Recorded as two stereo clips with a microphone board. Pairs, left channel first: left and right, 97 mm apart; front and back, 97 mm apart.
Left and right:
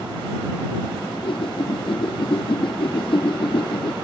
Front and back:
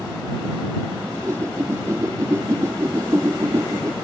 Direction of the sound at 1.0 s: 120° left.